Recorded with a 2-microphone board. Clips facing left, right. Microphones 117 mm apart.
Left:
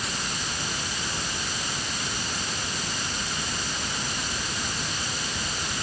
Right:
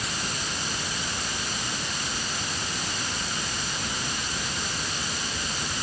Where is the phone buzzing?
No phone buzzing in this recording.